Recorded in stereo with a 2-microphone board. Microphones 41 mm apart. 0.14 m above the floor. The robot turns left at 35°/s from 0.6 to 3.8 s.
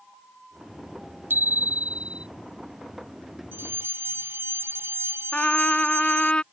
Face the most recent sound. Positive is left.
turn(degrees=30)  # may be behind; listen again after turning